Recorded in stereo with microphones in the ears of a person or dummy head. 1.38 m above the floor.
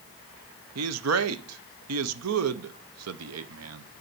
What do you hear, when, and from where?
0.8 s a man speaking: 85° right, 0.7 m